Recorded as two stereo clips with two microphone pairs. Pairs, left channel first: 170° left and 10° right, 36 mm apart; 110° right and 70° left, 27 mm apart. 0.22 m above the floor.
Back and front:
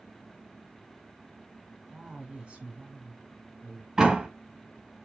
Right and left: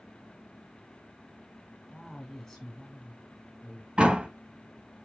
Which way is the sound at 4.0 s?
60° left.